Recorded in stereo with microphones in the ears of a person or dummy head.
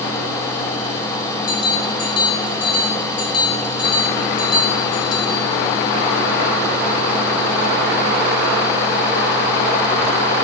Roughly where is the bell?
Left.